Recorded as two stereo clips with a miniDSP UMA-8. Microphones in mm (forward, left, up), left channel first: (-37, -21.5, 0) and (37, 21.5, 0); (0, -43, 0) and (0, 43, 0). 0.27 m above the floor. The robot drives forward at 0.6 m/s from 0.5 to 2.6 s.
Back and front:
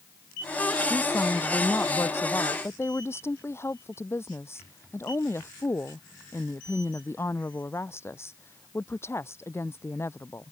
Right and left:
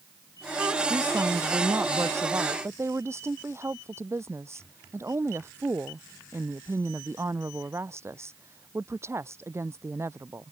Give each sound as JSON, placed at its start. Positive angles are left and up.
{"t": 0.9, "sound": "a woman speaking", "azimuth_deg": 145}